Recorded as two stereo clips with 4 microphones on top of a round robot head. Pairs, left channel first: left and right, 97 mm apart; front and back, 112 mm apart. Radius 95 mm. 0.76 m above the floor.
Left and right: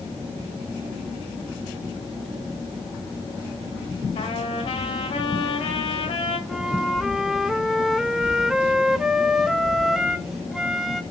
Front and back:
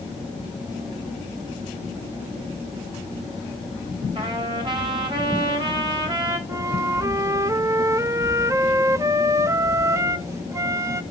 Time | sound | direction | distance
4.2 | a trumpet | 135° left | 4 m
6.5 | a flute | 175° right | 0.7 m